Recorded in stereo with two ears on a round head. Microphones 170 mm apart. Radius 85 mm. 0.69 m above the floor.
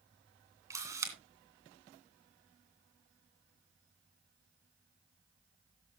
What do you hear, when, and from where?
0.7 s a camera shutter: 15° right (ahead or behind), 2.5 m